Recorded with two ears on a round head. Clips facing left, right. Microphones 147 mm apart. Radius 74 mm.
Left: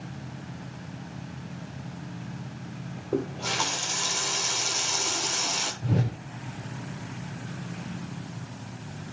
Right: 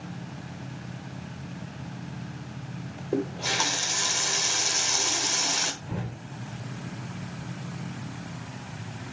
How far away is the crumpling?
I don't hear crumpling.